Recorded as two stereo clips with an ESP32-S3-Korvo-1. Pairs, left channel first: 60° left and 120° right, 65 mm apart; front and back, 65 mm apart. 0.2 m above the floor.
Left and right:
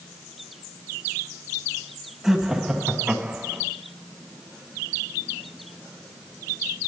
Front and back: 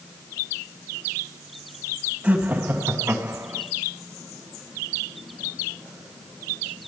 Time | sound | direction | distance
2.2 | laughter | 160° left | 1.6 m